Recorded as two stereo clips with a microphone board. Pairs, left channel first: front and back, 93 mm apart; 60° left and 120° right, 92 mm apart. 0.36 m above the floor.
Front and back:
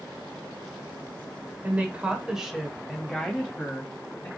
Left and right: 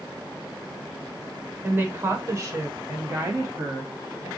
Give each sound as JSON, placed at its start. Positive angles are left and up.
{"t": 1.6, "sound": "a woman speaking", "azimuth_deg": -145, "distance_m": 0.9}